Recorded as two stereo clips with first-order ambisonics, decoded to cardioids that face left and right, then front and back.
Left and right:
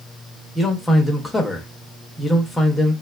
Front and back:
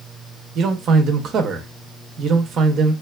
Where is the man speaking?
165° left, 0.5 m.